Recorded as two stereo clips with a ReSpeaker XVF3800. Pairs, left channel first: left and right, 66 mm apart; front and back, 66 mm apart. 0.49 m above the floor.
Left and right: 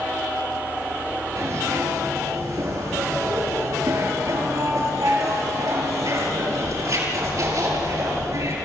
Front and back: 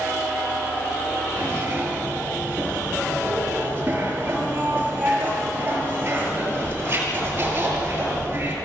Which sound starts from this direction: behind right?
A zipper, at 1.4 s.